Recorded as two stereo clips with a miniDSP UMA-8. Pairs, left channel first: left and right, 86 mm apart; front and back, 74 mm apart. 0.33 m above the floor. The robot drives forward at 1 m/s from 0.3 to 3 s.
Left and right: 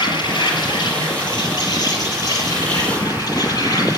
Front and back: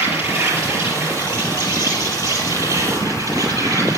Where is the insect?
125° left, 6 m; by 4.0 s 140° left, 7.5 m.